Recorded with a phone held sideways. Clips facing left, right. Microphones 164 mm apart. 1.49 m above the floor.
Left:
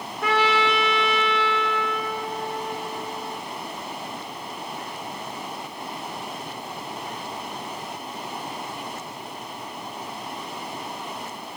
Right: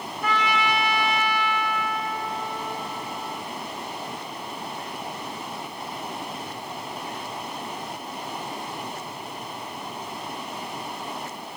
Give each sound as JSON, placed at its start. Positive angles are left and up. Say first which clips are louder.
{"t": 0.2, "sound": "a trumpet", "louder": "left 3 dB", "side_deg": 80, "distance_m": 1.4}